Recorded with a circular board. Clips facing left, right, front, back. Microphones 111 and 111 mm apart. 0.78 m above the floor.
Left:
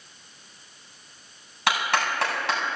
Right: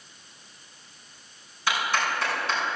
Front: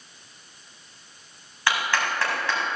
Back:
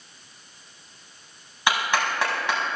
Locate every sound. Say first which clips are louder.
1.7 s a clap: left 2 dB, back 1 dB; 105° left, 4.5 m